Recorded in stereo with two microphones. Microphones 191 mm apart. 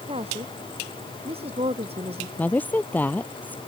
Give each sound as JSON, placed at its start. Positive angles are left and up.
{"t": 0.1, "sound": "a woman speaking", "side_deg": -30}
{"t": 2.4, "sound": "a woman speaking", "side_deg": 10}